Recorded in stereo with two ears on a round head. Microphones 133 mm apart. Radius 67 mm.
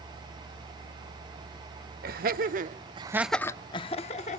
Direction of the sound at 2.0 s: 65° right (ahead or behind).